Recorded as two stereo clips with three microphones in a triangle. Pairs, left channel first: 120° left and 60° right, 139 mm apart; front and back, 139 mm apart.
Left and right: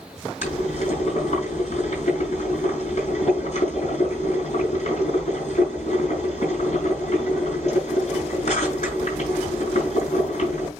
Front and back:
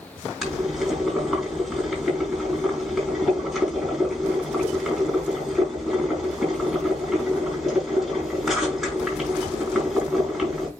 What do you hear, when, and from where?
0.4 s boiling: 90° left, 6.5 m